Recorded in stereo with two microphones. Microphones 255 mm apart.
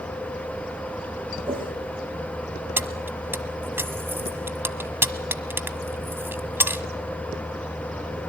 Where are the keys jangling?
10° right (ahead or behind), 1.2 m.